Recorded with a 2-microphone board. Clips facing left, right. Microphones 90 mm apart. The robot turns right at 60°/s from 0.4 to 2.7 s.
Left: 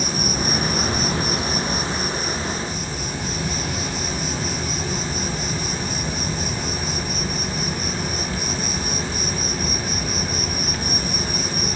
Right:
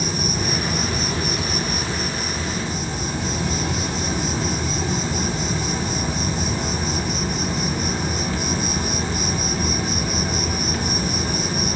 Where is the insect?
70° left, 1.1 m; by 11.8 s 150° right, 1.1 m.